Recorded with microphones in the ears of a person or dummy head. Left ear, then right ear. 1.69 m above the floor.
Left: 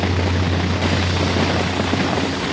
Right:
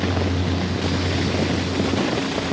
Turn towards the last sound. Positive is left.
No sound to turn to.